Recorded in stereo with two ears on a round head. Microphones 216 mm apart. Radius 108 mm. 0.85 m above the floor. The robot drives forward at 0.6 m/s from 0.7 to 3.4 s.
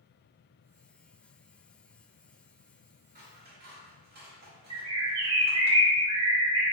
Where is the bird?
25° right (ahead or behind), 0.6 m.